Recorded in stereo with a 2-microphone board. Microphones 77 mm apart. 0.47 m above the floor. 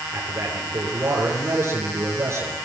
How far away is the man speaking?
About 8.5 m.